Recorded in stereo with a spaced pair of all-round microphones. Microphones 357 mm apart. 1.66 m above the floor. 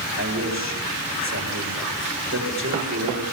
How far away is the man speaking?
About 4 m.